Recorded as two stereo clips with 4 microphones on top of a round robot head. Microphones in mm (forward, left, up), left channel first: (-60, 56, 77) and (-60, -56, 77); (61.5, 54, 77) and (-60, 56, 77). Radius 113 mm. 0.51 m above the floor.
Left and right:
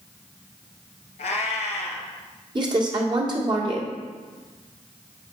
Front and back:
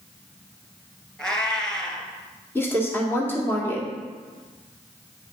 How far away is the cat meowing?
About 1.3 m.